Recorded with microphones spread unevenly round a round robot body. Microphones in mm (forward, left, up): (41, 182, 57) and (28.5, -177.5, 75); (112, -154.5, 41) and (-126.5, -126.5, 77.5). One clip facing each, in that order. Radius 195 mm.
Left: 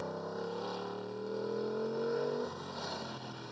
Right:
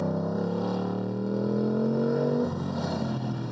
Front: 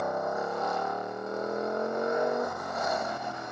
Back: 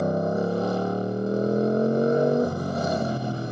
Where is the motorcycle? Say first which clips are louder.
Right 11 dB, back 8 dB; 130° right.